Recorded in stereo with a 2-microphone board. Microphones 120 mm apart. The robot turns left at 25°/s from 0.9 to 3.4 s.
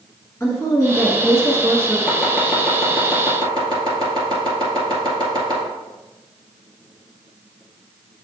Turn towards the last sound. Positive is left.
turn(degrees=-35)  # may be behind; listen again after turning